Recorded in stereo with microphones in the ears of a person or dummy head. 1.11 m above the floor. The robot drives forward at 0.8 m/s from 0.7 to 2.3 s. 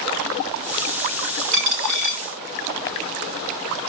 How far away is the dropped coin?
About 2.0 m.